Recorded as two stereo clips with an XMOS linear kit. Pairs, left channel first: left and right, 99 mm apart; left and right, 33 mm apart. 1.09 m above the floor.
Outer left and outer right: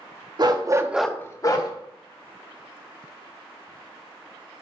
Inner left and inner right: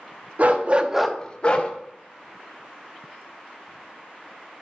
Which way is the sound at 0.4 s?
45° right (ahead or behind).